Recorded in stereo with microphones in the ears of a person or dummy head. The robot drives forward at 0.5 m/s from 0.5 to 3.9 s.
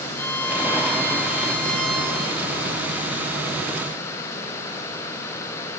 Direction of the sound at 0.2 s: 10° left (ahead or behind).